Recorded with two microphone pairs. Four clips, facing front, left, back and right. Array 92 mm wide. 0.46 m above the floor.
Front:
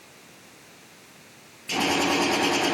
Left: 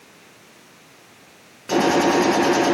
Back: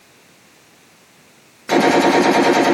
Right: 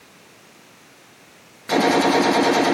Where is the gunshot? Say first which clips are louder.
Even, back 12 dB; 170° left, 4 m.